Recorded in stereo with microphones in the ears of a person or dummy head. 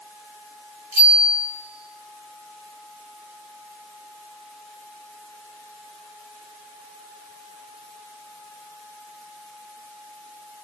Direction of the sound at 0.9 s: 30° left (ahead or behind).